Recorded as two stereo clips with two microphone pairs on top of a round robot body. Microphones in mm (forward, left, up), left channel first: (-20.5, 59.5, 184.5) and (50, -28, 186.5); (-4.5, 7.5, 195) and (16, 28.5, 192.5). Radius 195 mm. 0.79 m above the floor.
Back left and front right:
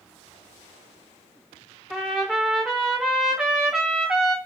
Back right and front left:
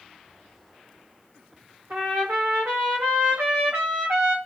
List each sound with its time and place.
1.9 s a trumpet: 35° left, 0.5 m